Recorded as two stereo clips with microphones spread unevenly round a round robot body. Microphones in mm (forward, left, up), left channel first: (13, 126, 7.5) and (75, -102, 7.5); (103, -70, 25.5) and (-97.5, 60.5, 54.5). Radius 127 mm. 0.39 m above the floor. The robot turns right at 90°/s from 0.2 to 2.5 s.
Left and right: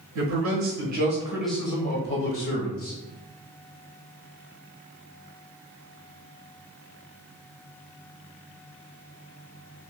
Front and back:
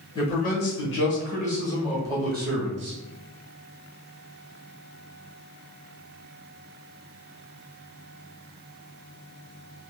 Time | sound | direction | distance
0.1 | a man speaking | 100° right | 1.4 m